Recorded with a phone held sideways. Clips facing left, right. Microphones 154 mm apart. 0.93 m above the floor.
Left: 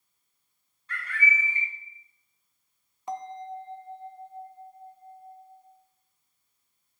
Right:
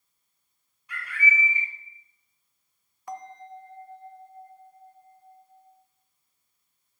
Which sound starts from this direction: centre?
A bird, at 0.9 s.